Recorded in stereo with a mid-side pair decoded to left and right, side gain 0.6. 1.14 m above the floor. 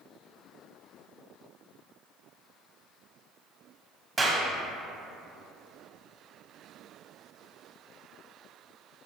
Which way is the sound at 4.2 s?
15° right.